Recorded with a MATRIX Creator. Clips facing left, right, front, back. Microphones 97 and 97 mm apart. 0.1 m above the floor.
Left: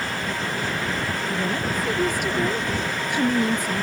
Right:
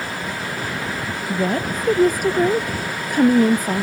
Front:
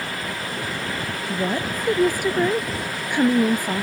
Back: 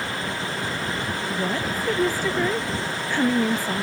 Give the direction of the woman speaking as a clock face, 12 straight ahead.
2 o'clock.